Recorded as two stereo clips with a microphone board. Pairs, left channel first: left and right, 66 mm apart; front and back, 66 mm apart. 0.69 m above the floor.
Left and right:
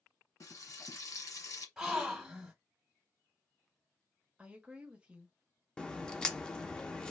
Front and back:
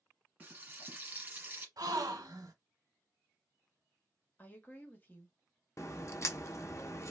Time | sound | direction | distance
0.4 | frying | 115° left | 1.4 m
1.8 | a gasp | 170° right | 1.1 m
4.4 | a woman speaking | 35° right | 1.0 m
5.8 | a crack | 15° left | 0.6 m